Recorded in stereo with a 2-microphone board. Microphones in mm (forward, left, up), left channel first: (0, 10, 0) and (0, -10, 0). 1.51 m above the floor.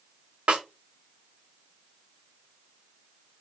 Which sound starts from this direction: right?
A snare drum, at 0.5 s.